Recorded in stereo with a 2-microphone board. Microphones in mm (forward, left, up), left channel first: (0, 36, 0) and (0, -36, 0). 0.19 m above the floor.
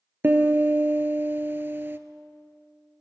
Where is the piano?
30° right (ahead or behind), 0.5 m.